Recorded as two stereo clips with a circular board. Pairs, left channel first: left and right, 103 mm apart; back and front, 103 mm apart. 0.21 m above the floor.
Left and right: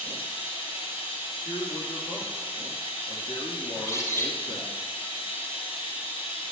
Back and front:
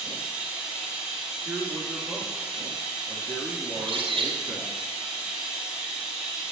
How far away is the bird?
About 4 m.